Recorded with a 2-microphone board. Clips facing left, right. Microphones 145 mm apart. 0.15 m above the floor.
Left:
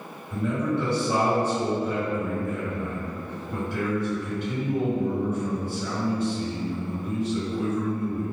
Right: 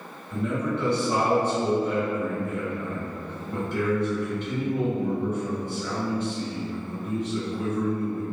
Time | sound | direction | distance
0.3 | a man speaking | 5° left (ahead or behind) | 1.9 m